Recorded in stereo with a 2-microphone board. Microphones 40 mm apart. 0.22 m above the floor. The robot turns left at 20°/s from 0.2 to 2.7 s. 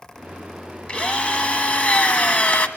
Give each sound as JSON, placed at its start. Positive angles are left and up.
{"t": 0.9, "sound": "a drill", "azimuth_deg": 135, "distance_m": 1.4}